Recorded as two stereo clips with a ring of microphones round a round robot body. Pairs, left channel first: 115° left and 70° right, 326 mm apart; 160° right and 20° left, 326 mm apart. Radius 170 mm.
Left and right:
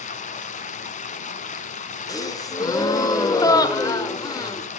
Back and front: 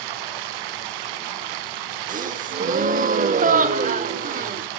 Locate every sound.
0.0 s running water: 40° left, 0.8 m
2.1 s a gasp: 45° left, 0.8 m